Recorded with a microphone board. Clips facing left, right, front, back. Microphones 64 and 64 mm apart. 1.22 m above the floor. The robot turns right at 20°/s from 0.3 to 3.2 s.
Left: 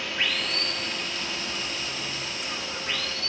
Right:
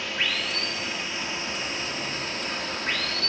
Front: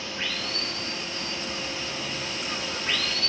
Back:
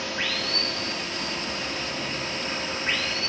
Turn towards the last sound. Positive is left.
turn(degrees=-120)